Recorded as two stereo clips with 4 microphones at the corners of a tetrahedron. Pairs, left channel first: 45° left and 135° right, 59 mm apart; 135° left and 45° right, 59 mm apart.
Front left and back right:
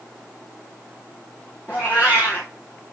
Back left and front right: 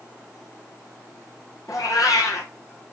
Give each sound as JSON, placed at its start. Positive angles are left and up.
{"t": 1.7, "sound": "a cat meowing", "azimuth_deg": 105, "distance_m": 2.5}